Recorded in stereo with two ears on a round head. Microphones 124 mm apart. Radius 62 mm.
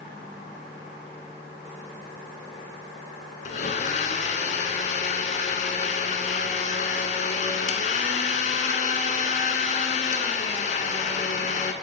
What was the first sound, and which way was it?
A blender, 50° left (ahead or behind).